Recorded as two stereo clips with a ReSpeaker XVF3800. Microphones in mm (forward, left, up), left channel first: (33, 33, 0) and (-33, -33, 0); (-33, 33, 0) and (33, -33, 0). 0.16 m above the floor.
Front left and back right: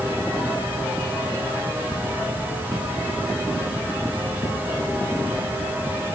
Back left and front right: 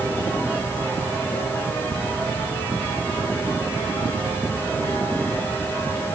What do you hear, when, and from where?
Only background noise.